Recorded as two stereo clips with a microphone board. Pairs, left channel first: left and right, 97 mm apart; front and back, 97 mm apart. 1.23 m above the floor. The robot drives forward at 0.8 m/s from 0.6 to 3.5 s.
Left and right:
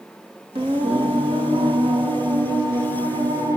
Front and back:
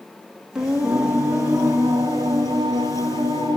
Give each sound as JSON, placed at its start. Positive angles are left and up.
{"t": 0.6, "sound": "singing", "azimuth_deg": -100, "distance_m": 2.0}